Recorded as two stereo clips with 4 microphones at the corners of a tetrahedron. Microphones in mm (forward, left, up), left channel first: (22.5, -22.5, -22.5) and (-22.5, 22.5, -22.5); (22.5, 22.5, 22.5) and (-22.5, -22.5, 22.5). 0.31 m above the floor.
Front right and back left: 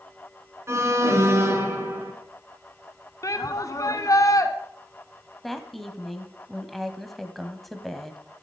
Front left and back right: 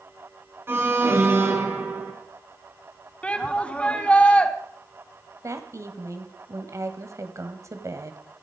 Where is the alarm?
175° left, 3 m.